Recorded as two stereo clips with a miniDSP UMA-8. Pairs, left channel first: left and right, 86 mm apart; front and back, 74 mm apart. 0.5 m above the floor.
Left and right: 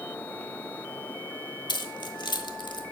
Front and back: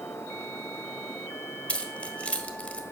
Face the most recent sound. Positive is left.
turn(degrees=70)